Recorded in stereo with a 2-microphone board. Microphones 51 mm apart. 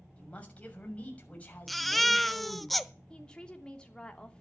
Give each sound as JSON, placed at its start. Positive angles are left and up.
{"t": 0.2, "sound": "a man speaking", "side_deg": 25, "distance_m": 6.0}
{"t": 1.7, "sound": "a baby crying", "side_deg": 0, "distance_m": 0.8}
{"t": 3.1, "sound": "a woman speaking", "side_deg": 20, "distance_m": 3.0}